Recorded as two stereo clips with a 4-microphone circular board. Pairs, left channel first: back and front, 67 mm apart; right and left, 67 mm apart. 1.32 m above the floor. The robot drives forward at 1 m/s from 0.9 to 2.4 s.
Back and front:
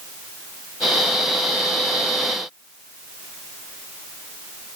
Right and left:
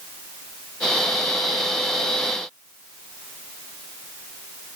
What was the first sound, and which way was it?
Only background noise.